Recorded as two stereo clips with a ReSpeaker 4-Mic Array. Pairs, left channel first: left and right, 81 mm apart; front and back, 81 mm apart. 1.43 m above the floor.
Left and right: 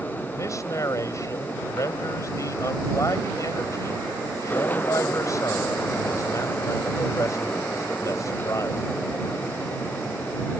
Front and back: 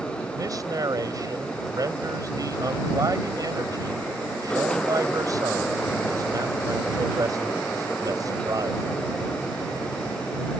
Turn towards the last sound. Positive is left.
turn(degrees=140)